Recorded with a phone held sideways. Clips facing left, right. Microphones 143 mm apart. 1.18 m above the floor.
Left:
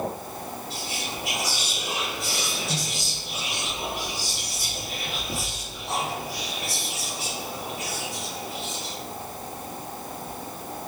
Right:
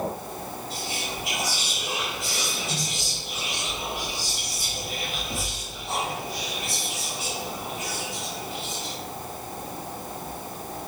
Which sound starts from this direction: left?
Whispering, at 0.7 s.